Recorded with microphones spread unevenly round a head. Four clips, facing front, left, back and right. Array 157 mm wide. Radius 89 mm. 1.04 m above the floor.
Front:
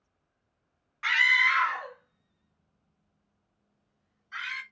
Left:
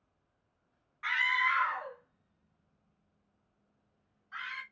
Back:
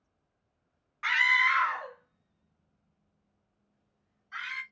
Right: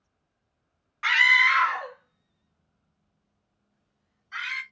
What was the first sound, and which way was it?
A scream, 120° right.